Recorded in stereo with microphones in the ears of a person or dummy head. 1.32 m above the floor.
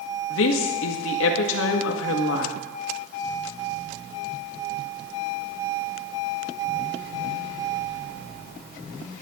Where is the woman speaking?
85° left, 1.7 m.